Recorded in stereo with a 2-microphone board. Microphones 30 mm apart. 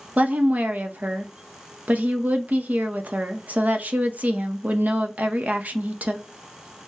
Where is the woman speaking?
55° right (ahead or behind), 0.8 m.